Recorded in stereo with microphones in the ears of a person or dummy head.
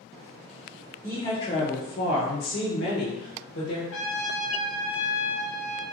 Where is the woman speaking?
10° left (ahead or behind), 0.8 m; by 3.8 s 60° left (ahead or behind), 1.2 m.